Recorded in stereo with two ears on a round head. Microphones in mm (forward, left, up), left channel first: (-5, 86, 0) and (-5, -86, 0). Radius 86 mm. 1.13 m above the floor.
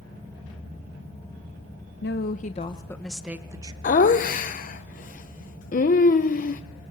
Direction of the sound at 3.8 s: 45° left (ahead or behind).